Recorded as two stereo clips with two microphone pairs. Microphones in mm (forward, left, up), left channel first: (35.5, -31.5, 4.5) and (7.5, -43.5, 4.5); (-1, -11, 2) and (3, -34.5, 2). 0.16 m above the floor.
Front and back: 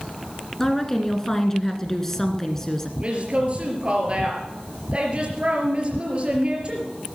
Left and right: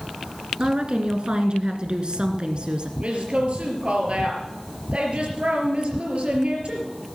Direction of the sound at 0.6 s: 50° right.